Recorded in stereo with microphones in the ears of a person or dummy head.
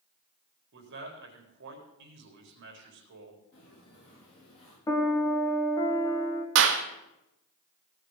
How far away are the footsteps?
About 9.5 m.